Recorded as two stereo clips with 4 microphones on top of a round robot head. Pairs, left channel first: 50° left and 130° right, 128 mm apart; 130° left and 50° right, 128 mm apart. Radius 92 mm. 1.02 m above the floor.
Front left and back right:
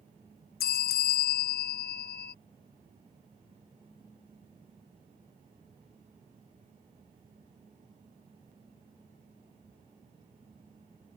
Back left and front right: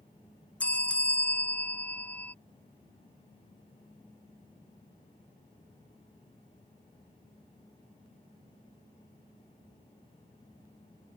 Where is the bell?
50° left.